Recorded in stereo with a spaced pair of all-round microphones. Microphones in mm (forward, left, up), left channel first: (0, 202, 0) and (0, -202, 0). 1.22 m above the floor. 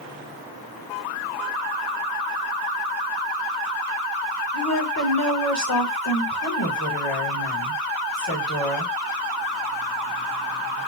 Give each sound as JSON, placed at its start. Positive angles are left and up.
{"t": 4.5, "sound": "a woman speaking", "side_deg": 40, "distance_m": 2.5}